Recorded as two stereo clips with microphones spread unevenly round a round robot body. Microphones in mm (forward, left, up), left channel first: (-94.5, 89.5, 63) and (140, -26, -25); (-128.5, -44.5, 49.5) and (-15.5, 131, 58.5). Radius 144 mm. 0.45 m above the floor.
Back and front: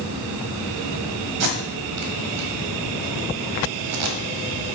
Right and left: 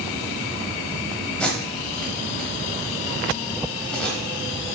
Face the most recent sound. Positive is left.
turn(degrees=-35)